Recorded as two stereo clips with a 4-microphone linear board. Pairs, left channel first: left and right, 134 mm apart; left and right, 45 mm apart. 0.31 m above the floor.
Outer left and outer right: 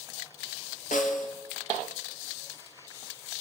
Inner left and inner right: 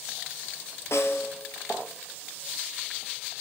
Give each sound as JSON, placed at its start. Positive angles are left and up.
{"t": 0.9, "sound": "a snare drum", "side_deg": 80, "distance_m": 1.4}